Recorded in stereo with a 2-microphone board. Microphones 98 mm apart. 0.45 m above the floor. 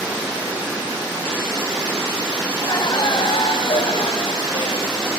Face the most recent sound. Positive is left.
turn(degrees=60)  # may be behind; listen again after turning